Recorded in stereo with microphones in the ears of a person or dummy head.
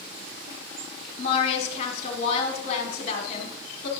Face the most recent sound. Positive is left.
turn(degrees=40)  # may be behind; listen again after turning